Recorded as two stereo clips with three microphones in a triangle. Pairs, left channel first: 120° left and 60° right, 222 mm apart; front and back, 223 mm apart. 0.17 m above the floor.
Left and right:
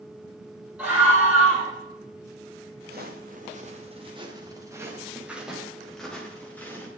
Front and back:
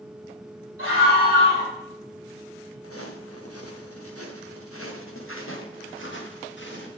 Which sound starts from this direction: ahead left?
A scream, at 0.8 s.